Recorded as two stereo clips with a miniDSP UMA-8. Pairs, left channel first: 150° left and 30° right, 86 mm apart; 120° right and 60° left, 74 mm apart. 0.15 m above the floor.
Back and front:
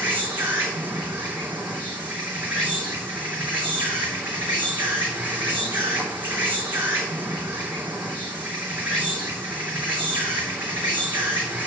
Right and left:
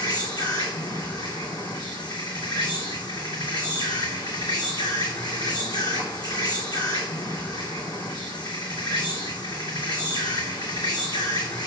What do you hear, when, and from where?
0.0 s an insect: 100° right, 3 m